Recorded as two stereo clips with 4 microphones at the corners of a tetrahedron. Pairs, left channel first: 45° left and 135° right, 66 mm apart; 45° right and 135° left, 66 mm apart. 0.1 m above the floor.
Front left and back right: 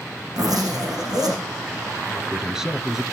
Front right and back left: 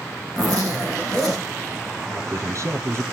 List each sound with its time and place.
0.3 s a zipper: 125° right, 8.5 m
2.1 s a man speaking: 145° left, 1.7 m